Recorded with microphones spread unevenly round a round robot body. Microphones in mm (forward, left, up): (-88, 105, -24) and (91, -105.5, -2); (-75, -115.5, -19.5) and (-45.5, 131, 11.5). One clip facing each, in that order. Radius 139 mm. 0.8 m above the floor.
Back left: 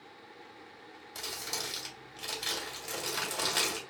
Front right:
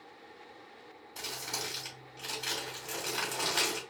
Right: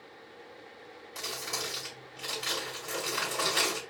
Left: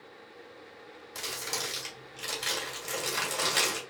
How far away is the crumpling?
About 2.5 m.